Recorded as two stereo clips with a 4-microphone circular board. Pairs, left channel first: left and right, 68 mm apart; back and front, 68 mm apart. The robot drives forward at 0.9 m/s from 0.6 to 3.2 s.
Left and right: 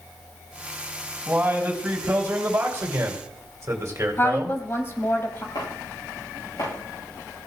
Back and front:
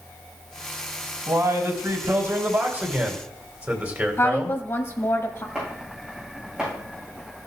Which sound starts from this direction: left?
Chopping, at 5.5 s.